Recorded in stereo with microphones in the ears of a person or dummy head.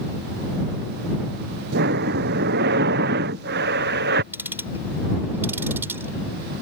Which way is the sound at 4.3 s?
10° right (ahead or behind).